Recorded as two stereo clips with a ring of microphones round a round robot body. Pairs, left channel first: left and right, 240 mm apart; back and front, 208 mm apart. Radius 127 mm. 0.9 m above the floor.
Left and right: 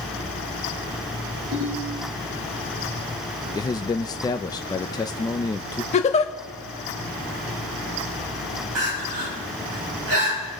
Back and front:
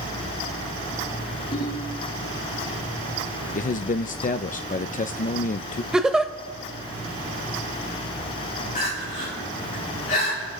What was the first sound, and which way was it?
A ringtone, 125° right.